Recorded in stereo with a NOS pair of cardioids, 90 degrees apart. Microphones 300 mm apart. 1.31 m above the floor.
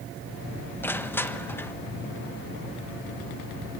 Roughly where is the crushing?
Ahead.